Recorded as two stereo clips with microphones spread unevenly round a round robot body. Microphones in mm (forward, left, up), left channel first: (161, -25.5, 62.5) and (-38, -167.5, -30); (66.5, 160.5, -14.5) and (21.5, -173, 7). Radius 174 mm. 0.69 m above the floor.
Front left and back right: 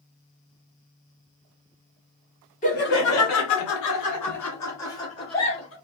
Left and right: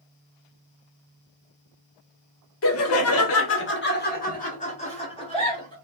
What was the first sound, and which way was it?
Laughter, 115° left.